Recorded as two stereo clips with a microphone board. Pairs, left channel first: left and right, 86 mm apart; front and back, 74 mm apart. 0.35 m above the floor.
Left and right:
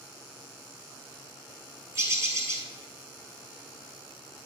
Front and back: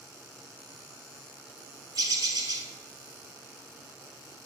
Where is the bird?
145° right, 1.0 m.